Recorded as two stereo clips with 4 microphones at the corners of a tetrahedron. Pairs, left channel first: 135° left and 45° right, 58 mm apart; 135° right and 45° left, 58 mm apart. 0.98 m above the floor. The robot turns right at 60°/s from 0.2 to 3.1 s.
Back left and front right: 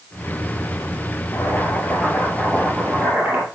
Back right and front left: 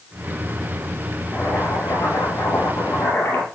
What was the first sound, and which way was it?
Boiling, 165° left.